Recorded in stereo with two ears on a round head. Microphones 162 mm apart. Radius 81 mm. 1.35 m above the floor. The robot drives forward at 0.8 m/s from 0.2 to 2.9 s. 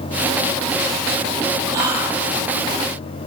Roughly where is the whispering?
Right.